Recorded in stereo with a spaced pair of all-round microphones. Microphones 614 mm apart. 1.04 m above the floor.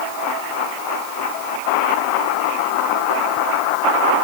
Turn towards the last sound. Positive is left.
No sound to turn to.